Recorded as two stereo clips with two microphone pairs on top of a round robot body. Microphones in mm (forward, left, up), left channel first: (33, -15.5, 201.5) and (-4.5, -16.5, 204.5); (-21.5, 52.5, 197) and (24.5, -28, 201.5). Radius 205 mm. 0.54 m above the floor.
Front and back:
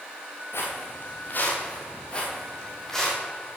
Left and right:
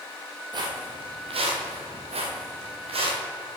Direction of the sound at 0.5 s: 15° right.